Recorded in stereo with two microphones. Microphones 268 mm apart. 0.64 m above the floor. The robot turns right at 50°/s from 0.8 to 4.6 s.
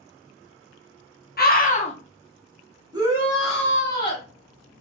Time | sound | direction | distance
1.4 | a scream | 35° left (ahead or behind) | 0.7 m
2.9 | a shout | 25° right | 1.0 m